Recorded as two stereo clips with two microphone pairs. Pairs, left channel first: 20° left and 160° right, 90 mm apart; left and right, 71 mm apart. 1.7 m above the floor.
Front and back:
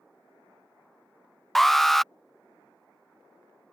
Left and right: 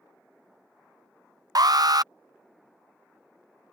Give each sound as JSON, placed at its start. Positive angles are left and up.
{"t": 1.6, "sound": "an alarm", "azimuth_deg": -65}